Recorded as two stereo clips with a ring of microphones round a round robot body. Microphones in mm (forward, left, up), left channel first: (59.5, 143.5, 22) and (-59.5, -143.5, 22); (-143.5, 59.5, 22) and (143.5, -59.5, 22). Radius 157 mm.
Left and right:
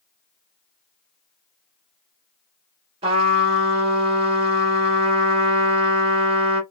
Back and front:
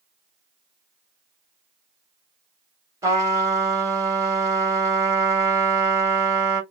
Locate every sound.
3.0 s a trumpet: 85° right, 1.3 m